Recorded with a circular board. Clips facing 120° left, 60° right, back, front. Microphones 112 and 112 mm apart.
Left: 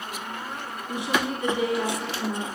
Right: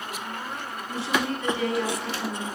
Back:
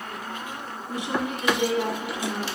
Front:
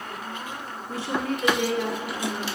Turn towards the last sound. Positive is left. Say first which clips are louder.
# even, even
turn(degrees=150)